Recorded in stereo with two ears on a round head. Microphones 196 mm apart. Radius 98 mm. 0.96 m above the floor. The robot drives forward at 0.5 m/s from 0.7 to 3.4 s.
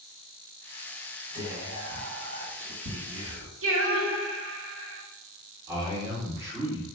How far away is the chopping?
I don't hear chopping.